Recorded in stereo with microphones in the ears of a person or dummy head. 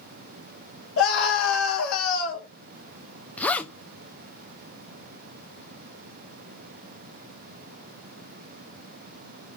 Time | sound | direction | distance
1.0 | a scream | 80° left | 3.5 m
3.4 | a zipper | 5° left (ahead or behind) | 0.5 m